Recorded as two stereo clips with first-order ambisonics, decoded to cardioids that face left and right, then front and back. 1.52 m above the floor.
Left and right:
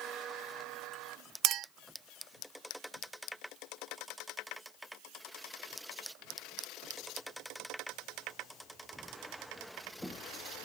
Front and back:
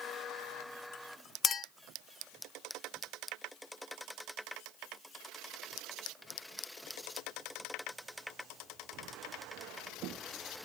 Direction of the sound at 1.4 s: 60° right.